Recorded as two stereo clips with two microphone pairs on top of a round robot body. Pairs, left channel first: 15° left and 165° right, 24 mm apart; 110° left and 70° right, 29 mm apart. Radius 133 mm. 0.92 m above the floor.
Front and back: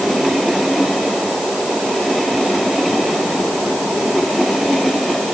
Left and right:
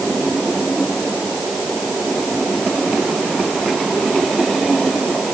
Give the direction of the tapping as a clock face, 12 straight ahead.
I don't hear tapping.